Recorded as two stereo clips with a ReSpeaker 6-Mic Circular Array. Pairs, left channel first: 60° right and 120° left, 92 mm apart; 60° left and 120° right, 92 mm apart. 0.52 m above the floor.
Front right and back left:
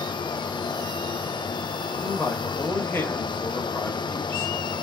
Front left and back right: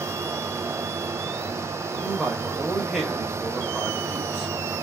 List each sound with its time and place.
1.9 s a man speaking: 40° right, 1.0 m